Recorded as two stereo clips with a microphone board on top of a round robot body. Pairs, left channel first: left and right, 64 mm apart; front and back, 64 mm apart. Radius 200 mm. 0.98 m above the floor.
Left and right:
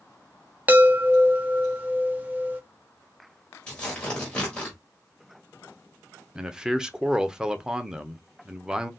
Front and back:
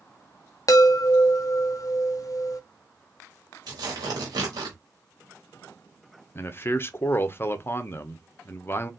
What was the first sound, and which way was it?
A chime, 25° right.